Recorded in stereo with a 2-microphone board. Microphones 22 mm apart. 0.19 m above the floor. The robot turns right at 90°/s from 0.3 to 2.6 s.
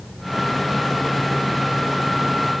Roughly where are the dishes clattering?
I don't hear dishes clattering.